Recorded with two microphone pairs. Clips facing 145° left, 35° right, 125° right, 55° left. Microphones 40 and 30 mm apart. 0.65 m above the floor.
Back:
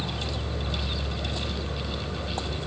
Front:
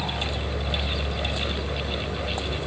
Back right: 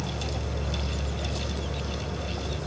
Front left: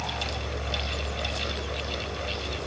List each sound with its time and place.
0.0 s an insect: 135° right, 2.5 m